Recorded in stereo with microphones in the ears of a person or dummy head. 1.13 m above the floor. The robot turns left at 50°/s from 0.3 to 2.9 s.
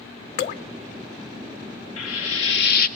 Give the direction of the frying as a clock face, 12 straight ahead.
9 o'clock.